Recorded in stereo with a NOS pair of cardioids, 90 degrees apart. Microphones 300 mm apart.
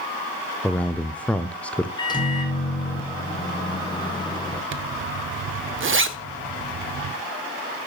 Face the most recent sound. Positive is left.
turn(degrees=-45)